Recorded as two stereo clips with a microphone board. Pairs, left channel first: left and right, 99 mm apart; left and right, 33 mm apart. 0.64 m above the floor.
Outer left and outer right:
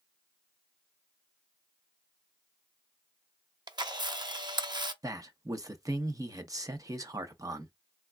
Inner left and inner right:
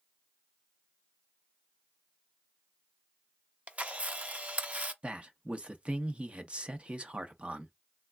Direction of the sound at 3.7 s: 45° right (ahead or behind).